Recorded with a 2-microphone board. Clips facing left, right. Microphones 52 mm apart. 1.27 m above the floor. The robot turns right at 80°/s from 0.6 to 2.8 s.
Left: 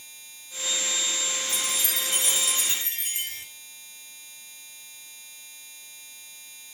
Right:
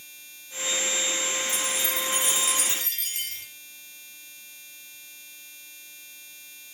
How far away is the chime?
About 3.5 m.